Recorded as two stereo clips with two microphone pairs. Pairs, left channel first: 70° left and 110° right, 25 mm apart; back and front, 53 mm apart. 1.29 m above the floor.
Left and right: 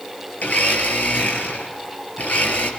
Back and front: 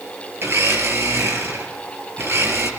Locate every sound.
0.4 s a blender: 45° left, 5.5 m